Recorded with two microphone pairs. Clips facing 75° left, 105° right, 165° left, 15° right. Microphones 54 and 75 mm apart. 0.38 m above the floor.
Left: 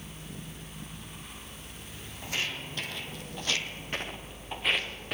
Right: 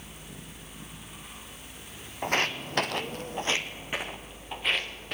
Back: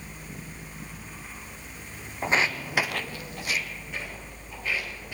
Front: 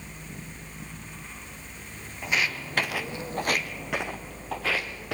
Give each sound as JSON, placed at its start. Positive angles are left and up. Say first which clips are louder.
{"t": 2.2, "sound": "footsteps", "louder": "right 7 dB, back 3 dB", "azimuth_deg": -140, "distance_m": 1.2}